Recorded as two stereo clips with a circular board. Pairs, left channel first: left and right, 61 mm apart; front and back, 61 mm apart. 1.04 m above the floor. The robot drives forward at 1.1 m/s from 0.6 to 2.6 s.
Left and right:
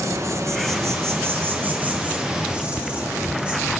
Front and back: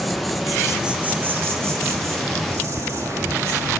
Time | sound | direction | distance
0.0 | an insect | 90° right | 1.1 m